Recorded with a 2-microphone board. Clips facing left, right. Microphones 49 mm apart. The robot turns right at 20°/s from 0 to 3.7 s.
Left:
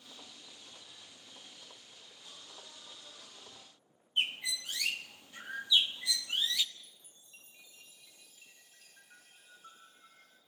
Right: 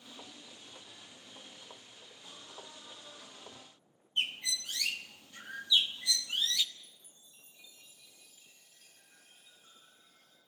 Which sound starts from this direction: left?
A chime, at 6.8 s.